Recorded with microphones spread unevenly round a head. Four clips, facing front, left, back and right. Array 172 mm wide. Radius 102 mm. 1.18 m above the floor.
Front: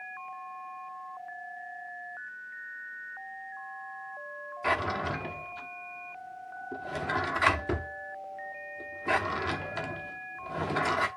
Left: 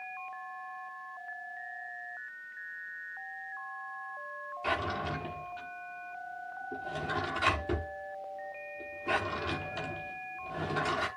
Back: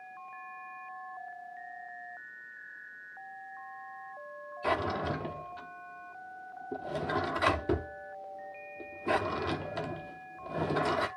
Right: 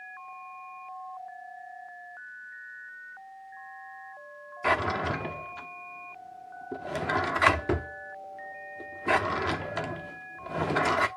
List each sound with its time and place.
4.6 s a drawer: 130° right, 0.8 m